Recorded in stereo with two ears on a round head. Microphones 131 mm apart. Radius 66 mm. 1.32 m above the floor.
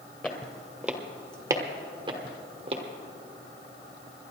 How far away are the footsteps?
About 1.4 m.